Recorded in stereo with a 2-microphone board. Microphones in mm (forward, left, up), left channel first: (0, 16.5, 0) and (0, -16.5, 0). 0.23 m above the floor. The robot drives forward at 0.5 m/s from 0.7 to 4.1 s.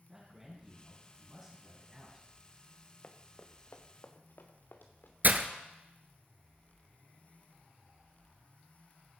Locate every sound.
0.1 s a man speaking: 10° right (ahead or behind), 2.5 m; by 2.3 s 15° right (ahead or behind), 2 m
3.0 s running footsteps: 40° left (ahead or behind), 1.3 m; by 5.1 s 75° left (ahead or behind), 2 m
5.2 s breaking glass: 55° right (ahead or behind), 0.8 m